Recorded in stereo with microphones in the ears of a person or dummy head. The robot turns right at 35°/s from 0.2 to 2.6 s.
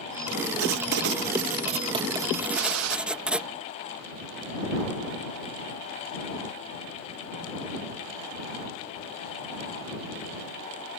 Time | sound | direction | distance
0.6 | writing | 70° right | ?
2.5 | a gunshot | 85° right | ?